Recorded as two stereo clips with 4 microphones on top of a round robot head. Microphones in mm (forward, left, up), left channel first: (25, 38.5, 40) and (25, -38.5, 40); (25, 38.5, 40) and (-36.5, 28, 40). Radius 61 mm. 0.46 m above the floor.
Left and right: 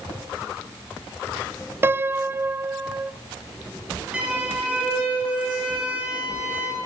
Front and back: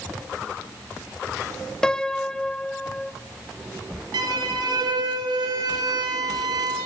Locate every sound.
1.8 s a piano: 60° right, 0.5 m
4.1 s a violin: 170° right, 5 m